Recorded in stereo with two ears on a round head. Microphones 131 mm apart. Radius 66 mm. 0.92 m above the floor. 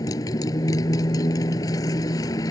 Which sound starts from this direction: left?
A motorcycle, at 0.0 s.